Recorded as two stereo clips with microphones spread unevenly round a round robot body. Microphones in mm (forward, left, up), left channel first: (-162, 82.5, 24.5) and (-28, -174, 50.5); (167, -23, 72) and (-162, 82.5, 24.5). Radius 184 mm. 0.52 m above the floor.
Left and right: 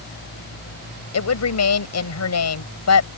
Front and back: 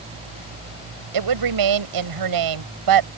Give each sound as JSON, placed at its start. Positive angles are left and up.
{"t": 1.1, "sound": "a woman speaking", "azimuth_deg": 145}